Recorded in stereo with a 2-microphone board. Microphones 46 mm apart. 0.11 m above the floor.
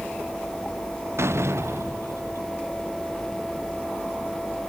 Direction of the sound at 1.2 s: 70° right (ahead or behind).